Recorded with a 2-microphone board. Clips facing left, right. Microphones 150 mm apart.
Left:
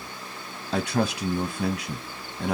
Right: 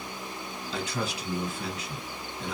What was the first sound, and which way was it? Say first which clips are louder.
A man speaking: left 8 dB; 70° left (ahead or behind).